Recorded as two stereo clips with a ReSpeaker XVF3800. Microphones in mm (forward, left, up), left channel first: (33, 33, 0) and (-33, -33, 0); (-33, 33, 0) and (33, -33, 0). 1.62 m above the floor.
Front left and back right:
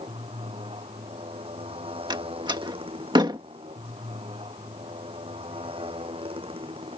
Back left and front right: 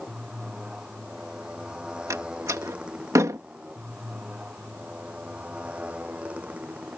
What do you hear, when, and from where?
0.0 s a motorcycle: 130° right; by 7.0 s 120° right
2.1 s a door slam: 100° right